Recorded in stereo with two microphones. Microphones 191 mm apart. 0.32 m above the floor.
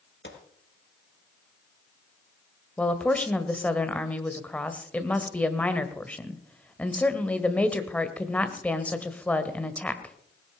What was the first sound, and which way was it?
A gunshot, 70° left (ahead or behind).